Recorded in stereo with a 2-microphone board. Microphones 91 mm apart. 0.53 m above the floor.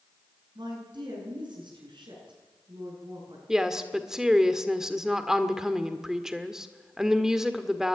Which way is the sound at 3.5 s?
5° right (ahead or behind).